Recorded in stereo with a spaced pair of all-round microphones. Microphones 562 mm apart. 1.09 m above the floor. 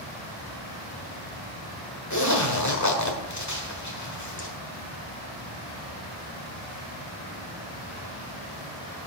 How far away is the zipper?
About 1.4 m.